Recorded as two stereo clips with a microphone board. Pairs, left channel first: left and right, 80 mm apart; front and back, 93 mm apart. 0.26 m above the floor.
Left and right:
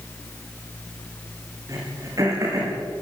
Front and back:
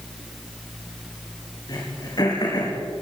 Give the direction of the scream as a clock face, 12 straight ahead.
No scream in this recording.